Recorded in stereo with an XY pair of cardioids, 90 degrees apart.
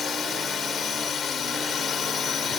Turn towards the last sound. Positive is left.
turn(degrees=55)